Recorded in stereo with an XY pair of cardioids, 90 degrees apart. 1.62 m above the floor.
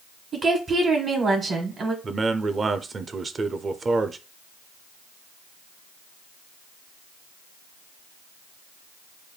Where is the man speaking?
40° right, 0.6 m.